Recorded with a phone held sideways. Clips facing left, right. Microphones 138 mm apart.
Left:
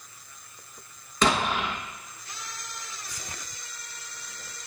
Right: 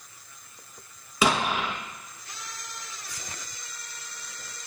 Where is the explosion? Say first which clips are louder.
Even; 10° right (ahead or behind), 1.2 m.